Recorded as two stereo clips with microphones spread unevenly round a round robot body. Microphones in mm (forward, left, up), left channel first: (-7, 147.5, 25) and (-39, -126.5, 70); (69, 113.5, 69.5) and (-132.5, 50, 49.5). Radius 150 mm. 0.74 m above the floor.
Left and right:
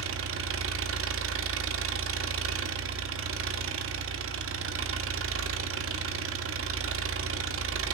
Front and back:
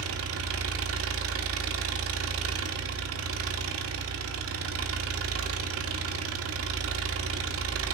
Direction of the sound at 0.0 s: 140° right.